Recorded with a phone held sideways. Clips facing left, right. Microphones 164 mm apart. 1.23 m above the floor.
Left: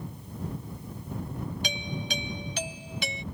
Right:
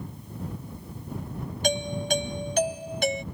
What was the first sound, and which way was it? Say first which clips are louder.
A doorbell: right 8 dB; 50° right (ahead or behind).